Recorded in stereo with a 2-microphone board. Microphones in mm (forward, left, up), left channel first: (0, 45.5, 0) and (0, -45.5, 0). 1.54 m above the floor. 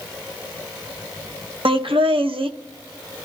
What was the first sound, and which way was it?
Laughter, 85° right.